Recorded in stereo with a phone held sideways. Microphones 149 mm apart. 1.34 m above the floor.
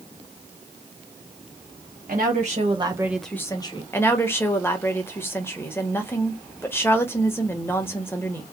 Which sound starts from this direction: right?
A woman speaking, at 2.1 s.